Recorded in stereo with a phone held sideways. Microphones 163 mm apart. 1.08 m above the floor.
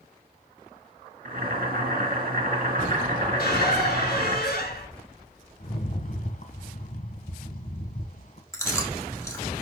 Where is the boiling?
65° right (ahead or behind), 3 m.